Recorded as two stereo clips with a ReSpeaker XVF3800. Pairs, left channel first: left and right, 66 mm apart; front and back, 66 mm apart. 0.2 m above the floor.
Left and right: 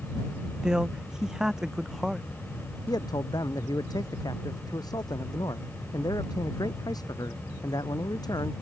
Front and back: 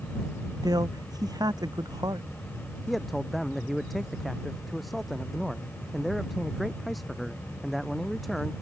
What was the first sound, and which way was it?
A man speaking, 170° right.